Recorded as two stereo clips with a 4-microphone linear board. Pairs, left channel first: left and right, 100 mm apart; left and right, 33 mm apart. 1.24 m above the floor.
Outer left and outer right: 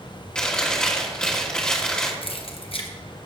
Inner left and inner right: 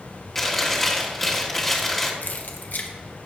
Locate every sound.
0.3 s chewing: 10° left (ahead or behind), 1.5 m
2.2 s keys jangling: 65° left (ahead or behind), 1.0 m